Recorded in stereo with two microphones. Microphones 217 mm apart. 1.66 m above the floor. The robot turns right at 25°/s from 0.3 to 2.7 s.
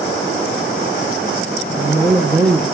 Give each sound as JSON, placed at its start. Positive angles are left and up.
{"t": 1.7, "sound": "a woman speaking", "side_deg": 10, "distance_m": 1.1}